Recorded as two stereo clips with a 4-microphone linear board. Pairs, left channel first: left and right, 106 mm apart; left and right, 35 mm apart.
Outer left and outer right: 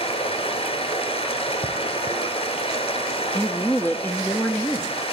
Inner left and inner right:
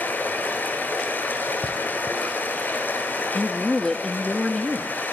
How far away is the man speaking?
About 0.6 m.